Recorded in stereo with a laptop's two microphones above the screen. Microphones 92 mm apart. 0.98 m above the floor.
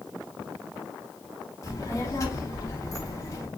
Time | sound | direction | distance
1.6 | a child speaking | 35° left (ahead or behind) | 1.1 m